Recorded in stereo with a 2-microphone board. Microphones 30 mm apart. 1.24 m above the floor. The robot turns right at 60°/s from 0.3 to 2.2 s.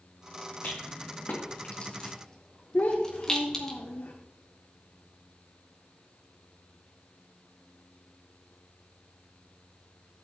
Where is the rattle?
65° left (ahead or behind), 2.0 m; by 3.7 s 20° left (ahead or behind), 2.0 m.